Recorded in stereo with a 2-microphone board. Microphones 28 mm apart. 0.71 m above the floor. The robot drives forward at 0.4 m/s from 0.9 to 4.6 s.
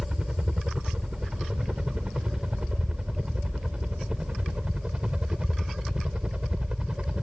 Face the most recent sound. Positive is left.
turn(degrees=-35)  # may be behind; listen again after turning